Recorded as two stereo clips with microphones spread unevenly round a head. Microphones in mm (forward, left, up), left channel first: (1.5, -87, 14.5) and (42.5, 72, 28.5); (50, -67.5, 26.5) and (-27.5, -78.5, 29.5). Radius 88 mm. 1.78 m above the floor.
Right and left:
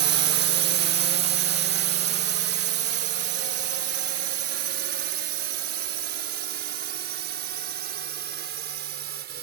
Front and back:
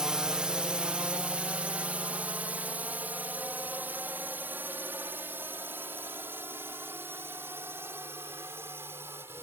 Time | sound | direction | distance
0.0 | a drone | 105° left | ?